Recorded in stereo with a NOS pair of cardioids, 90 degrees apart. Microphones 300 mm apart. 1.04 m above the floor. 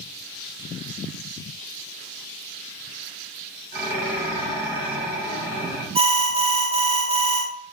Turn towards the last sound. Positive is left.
turn(degrees=-20)